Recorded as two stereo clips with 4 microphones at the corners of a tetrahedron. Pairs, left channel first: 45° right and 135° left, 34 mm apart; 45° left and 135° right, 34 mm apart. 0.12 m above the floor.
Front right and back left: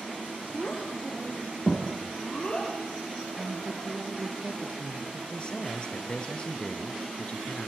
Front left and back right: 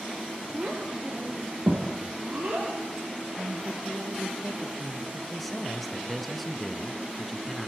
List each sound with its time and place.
0.5 s a child speaking: 95° right, 3.5 m; by 2.7 s 105° right, 4 m
3.4 s a woman speaking: 160° right, 3 m
5.3 s a man speaking: 45° right, 1.6 m